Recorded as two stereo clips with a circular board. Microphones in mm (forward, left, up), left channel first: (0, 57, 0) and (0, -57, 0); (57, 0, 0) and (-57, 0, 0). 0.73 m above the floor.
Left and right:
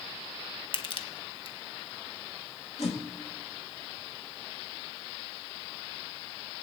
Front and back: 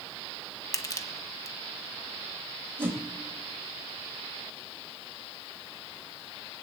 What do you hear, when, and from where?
0.7 s crushing: 60° left, 1.2 m
2.8 s a whoosh: 110° left, 1.9 m